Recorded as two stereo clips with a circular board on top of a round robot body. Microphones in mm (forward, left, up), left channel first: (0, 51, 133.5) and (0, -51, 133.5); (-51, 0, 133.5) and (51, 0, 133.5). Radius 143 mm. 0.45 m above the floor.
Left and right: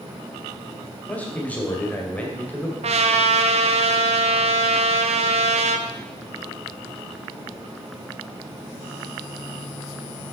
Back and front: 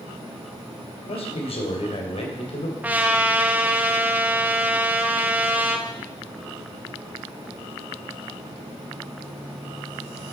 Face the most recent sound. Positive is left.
turn(degrees=-75)